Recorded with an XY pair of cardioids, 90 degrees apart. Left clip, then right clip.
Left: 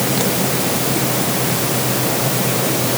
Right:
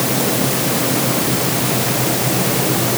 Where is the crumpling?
I don't hear crumpling.